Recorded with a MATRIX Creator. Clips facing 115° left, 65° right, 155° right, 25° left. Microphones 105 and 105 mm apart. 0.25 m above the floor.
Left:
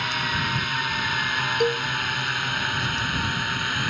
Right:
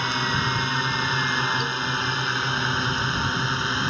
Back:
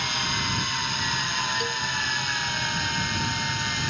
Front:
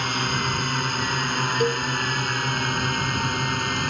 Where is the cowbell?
75° left.